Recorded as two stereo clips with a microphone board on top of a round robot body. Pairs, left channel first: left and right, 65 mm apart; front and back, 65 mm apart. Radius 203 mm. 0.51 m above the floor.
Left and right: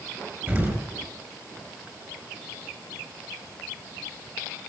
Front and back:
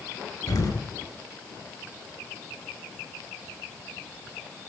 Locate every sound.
0.5 s an explosion: 30° right, 8 m